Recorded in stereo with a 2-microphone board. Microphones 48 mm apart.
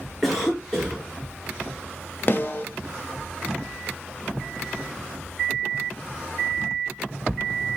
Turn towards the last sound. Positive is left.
turn(degrees=40)  # may be behind; listen again after turning